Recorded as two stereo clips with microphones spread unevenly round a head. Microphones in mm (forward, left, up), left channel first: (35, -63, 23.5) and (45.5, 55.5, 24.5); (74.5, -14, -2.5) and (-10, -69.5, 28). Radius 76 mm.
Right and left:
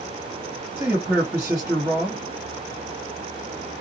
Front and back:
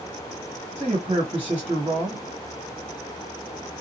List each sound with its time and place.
0.8 s a man speaking: 165° left, 1.1 m